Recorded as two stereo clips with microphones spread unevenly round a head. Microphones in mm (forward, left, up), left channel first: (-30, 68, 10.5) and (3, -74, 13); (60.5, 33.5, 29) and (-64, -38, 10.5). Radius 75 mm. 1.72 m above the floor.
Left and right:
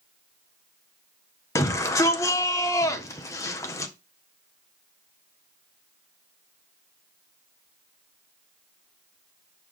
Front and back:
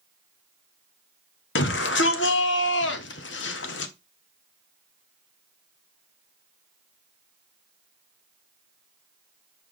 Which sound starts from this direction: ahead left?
A shout, at 1.6 s.